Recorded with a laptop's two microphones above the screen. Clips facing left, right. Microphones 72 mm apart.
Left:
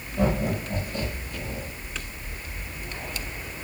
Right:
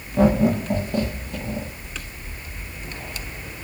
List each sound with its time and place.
0.2 s laughter: 60° right (ahead or behind), 1.4 m